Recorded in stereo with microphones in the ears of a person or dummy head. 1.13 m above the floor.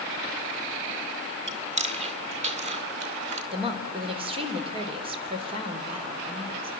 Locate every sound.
1.5 s chewing: 30° right (ahead or behind), 0.6 m
3.5 s a woman speaking: 30° right (ahead or behind), 3.5 m